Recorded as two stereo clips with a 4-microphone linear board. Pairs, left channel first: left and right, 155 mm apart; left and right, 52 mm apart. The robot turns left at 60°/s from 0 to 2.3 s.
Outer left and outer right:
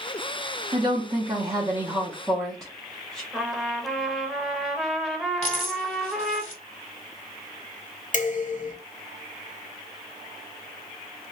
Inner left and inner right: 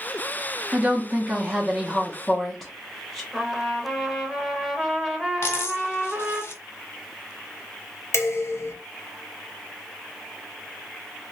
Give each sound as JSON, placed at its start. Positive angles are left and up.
{"t": 0.7, "sound": "a woman speaking", "azimuth_deg": -90, "distance_m": 0.6}
{"t": 3.3, "sound": "a trumpet", "side_deg": 0, "distance_m": 0.6}
{"t": 5.4, "sound": "a dropped coin", "side_deg": 50, "distance_m": 1.3}
{"t": 8.1, "sound": "dishes clattering", "side_deg": 55, "distance_m": 0.8}